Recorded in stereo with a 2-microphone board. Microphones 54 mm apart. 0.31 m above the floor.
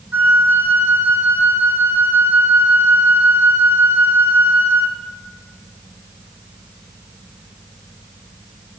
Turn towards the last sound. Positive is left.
turn(degrees=-35)  # may be behind; listen again after turning